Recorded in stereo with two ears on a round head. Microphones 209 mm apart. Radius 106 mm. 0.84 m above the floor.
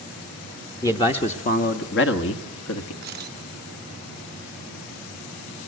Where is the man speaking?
15° left (ahead or behind), 1.0 m; by 2.9 s 65° left (ahead or behind), 1.5 m.